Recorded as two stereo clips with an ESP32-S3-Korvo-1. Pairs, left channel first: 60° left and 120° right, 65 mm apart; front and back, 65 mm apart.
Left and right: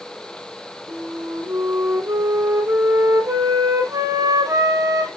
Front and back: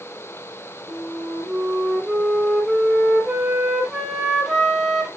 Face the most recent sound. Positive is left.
turn(degrees=-95)